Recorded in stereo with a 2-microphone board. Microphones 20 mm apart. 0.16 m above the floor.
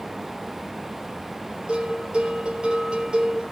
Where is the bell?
70° right (ahead or behind), 3.5 m.